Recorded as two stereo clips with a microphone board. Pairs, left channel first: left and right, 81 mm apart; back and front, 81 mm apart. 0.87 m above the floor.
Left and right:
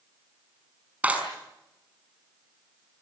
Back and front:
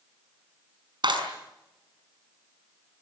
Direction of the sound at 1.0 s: 20° right.